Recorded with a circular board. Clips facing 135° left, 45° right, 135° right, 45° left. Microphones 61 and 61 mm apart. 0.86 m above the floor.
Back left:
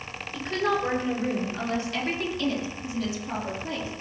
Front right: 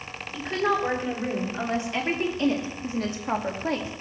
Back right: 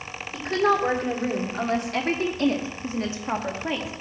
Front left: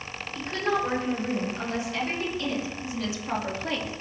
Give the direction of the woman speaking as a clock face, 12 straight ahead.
4 o'clock.